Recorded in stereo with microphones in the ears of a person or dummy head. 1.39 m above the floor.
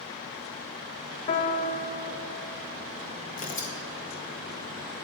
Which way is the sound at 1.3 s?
35° left (ahead or behind).